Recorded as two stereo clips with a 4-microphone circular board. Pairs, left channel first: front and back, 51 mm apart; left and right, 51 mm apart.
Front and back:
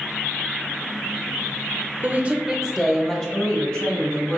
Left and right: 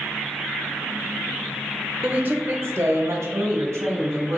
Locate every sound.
2.0 s a woman speaking: 155° right, 0.6 m; by 4.4 s 45° right, 1.6 m